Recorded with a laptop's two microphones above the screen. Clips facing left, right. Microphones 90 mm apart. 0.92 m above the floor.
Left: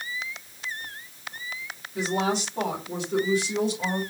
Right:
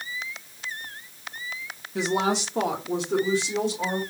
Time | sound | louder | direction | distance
1.9 | a woman speaking | right 2 dB | 75° right (ahead or behind) | 1.5 m